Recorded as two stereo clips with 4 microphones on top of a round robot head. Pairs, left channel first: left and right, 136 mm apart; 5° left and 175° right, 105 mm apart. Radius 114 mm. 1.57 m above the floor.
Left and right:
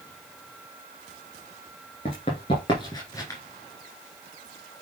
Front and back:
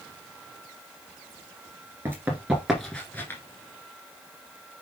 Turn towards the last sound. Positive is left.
turn(degrees=45)